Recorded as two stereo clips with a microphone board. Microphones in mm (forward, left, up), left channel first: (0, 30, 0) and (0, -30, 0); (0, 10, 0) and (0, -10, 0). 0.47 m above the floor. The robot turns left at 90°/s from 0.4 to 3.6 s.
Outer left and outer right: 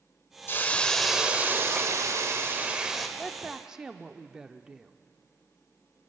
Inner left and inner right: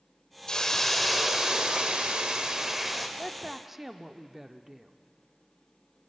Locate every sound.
0.5 s a hiss: 50° left, 1.7 m; by 3.1 s 175° left, 1.7 m
3.2 s a woman speaking: 5° left (ahead or behind), 0.7 m; by 4.9 s 10° right (ahead or behind), 0.7 m